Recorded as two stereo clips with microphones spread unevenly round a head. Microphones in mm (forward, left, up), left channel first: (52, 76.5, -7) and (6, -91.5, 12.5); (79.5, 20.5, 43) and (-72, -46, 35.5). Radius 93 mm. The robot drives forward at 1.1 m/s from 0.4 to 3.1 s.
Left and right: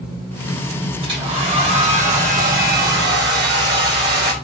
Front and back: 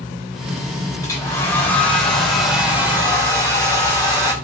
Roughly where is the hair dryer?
Ahead right.